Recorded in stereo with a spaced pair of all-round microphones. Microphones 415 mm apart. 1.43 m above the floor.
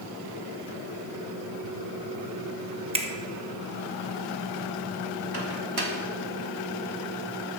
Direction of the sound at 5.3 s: 60° right (ahead or behind).